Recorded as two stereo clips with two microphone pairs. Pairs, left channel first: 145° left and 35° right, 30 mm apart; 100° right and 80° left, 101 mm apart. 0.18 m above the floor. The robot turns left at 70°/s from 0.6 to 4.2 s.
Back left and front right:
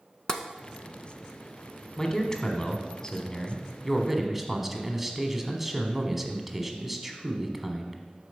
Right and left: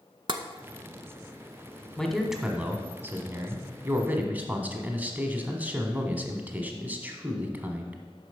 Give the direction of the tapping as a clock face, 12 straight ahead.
9 o'clock.